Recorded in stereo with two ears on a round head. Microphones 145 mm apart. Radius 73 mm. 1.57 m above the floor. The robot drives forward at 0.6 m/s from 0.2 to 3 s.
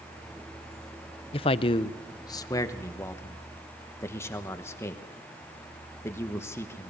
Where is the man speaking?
35° left (ahead or behind), 0.5 m; by 6.9 s 15° left (ahead or behind), 1.1 m.